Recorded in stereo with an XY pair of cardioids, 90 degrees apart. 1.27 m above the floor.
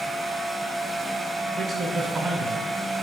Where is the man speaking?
40° right, 1.0 m.